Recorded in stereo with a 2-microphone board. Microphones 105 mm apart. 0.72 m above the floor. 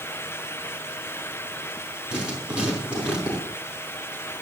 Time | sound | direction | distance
2.1 | writing | 10° right (ahead or behind) | 5.5 m